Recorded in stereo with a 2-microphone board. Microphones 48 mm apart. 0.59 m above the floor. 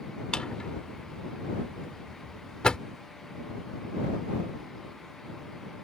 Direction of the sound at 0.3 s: 15° left (ahead or behind).